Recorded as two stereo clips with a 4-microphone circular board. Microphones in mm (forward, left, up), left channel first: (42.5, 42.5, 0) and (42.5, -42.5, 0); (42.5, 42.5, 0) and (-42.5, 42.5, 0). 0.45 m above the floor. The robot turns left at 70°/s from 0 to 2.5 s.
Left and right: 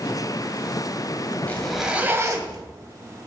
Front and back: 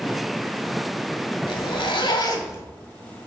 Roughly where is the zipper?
Ahead.